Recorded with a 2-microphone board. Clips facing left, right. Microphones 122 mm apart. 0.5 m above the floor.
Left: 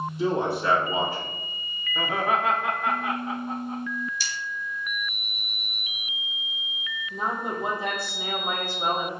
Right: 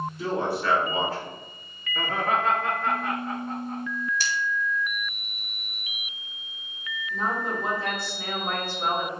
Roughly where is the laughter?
Centre.